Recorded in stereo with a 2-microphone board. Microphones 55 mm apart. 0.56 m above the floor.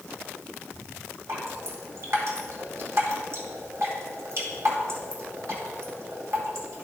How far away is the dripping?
About 1.9 m.